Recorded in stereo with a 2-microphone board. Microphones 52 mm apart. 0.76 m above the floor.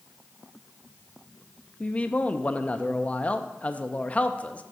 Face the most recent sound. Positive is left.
turn(degrees=25)  # may be behind; listen again after turning